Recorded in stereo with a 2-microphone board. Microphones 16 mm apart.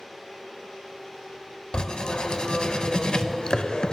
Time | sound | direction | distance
1.7 | writing | 60° left (ahead or behind) | 0.5 m